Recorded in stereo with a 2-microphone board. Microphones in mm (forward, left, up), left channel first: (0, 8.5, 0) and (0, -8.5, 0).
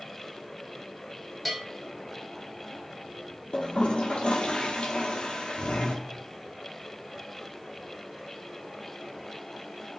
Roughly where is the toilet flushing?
Left.